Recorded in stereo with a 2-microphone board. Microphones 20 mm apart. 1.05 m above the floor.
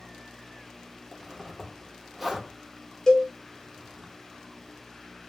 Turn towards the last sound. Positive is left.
turn(degrees=30)  # may be behind; listen again after turning